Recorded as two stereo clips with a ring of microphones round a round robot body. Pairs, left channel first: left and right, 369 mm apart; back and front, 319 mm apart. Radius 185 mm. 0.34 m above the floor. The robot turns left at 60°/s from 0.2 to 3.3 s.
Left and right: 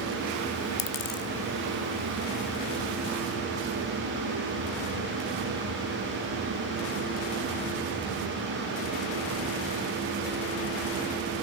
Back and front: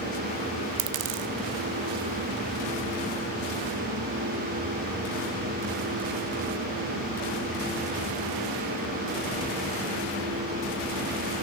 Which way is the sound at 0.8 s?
40° left.